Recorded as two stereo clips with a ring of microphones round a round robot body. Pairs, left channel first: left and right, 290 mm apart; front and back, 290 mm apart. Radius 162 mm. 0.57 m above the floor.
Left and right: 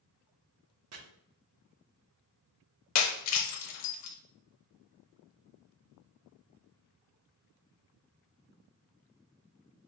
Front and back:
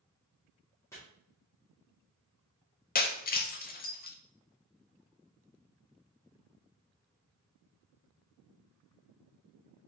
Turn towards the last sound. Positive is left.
turn(degrees=60)